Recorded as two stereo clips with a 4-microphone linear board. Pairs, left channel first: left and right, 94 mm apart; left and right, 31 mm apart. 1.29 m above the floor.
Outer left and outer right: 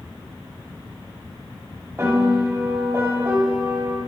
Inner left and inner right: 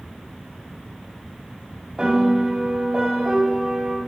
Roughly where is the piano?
Right.